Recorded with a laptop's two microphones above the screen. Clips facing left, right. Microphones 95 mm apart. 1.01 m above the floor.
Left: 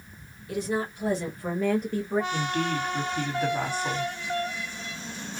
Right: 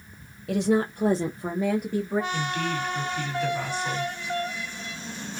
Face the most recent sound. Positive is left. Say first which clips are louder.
# left 1 dB
turn(degrees=40)  # may be behind; listen again after turning